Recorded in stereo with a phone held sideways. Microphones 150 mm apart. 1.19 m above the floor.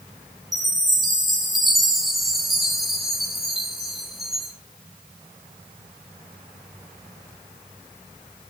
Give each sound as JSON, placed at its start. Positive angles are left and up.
{"t": 0.5, "sound": "a chime", "side_deg": 0, "distance_m": 2.0}